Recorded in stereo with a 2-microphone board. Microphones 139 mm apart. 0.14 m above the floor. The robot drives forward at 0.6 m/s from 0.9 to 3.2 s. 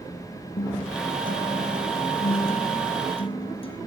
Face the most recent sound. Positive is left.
turn(degrees=40)  # may be behind; listen again after turning